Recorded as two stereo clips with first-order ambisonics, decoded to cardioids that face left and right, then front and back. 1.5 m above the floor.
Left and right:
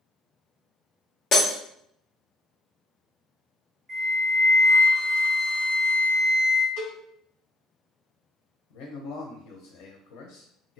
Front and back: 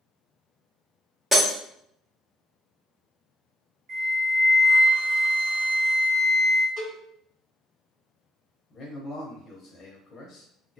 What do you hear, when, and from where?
1.3 s breaking glass: 110° left, 1.0 m
3.9 s a flute: 165° right, 1.4 m
6.8 s a cowbell: 120° left, 1.9 m
8.7 s a man speaking: 70° left, 0.7 m